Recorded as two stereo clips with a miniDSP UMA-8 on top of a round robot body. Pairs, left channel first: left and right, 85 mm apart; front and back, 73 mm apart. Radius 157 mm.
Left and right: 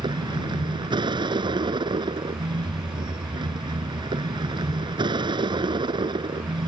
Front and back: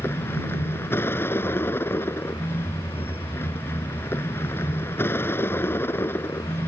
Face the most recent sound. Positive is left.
turn(degrees=-60)